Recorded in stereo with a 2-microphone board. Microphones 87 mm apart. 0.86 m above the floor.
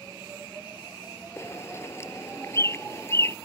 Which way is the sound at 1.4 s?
30° left (ahead or behind).